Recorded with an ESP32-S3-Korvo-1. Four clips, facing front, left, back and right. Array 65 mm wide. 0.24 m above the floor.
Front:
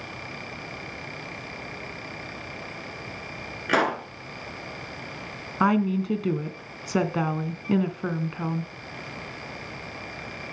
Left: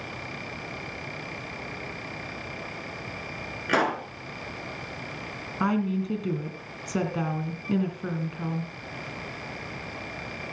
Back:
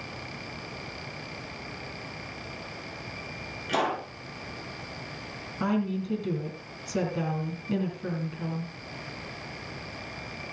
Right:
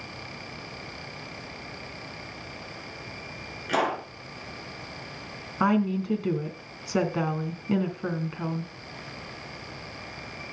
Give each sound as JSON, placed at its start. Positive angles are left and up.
{"t": 3.7, "sound": "a pop", "azimuth_deg": 30, "distance_m": 3.5}
{"t": 5.6, "sound": "a woman speaking", "azimuth_deg": -15, "distance_m": 2.0}